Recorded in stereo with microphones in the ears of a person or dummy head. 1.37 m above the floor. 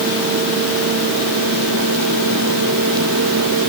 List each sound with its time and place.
Only background noise.